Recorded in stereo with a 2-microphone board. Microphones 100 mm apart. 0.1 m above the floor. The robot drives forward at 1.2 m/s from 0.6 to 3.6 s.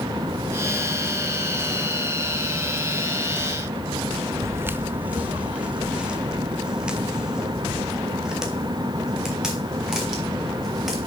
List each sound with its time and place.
4.4 s footsteps: 30° right (ahead or behind), 0.6 m; by 11.1 s 5° right (ahead or behind), 7 m